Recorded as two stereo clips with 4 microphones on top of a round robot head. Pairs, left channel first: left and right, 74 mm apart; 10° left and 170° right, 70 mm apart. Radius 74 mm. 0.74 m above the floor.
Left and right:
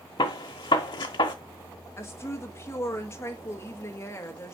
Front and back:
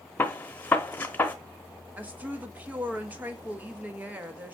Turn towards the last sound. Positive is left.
turn(degrees=130)